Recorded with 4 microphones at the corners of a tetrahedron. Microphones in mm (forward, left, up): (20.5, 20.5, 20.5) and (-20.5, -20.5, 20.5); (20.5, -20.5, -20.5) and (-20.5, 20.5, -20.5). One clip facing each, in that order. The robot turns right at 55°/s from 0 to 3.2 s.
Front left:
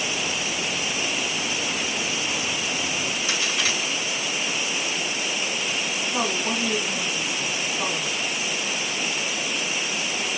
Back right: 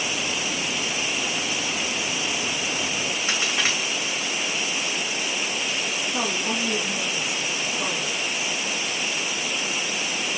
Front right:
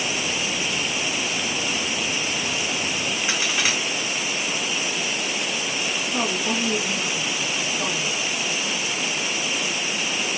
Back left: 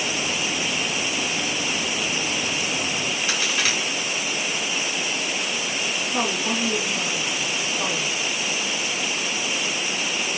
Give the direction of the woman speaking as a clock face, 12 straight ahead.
9 o'clock.